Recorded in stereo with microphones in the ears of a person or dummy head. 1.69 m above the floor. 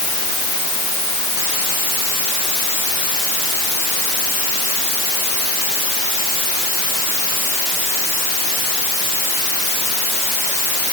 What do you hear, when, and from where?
Only background noise.